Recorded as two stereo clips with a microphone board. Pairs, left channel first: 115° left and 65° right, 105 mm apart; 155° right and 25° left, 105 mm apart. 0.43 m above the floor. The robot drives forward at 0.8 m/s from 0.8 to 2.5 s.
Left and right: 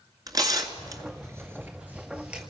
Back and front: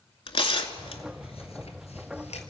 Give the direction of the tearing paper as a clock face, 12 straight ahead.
4 o'clock.